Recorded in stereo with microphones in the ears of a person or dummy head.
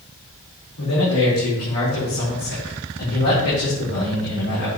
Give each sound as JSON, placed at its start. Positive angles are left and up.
{"t": 0.8, "sound": "a man speaking", "side_deg": 85, "distance_m": 4.0}